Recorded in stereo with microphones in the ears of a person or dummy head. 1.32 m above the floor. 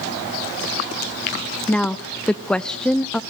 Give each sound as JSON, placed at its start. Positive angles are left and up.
{"t": 1.7, "sound": "a woman speaking", "side_deg": 5, "distance_m": 0.5}